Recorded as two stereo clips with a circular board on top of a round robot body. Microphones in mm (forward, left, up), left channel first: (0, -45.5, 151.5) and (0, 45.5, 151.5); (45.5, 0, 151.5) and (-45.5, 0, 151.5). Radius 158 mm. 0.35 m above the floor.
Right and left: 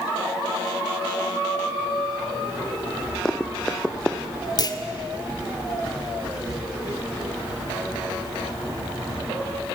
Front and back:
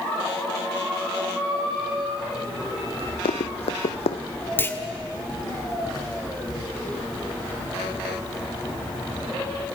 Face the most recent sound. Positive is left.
turn(degrees=-65)